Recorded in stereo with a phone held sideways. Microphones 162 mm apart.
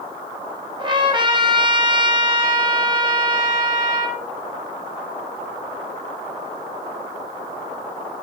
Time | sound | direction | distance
0.8 | a trumpet | 30° right (ahead or behind) | 0.8 m